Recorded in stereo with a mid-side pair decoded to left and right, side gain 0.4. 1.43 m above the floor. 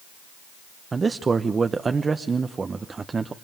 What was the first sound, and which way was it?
A man speaking, 40° right.